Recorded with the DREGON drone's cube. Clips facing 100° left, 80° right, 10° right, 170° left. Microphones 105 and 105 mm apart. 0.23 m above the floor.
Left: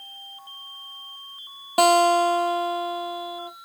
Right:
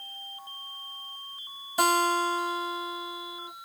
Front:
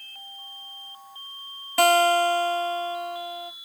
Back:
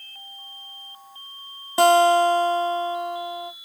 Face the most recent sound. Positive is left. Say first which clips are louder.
# left 8 dB, back 4 dB
turn(degrees=100)